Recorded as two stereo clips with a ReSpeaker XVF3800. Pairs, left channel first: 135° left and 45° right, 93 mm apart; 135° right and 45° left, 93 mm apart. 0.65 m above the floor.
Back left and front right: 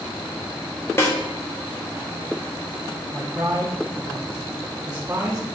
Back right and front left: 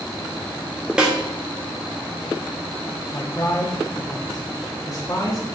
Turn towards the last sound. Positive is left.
turn(degrees=-105)